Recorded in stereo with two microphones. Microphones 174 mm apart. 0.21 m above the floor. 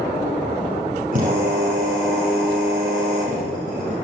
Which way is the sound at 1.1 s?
50° right (ahead or behind).